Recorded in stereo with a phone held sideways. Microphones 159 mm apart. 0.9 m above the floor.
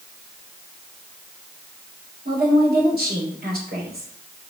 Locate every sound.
2.2 s a woman speaking: 80° right, 3 m